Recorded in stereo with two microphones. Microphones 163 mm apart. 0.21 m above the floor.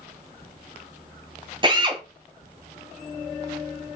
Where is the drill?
30° right (ahead or behind), 1.5 m.